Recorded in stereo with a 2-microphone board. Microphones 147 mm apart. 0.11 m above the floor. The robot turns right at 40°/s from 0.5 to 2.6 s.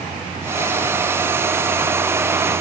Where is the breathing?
I don't hear breathing.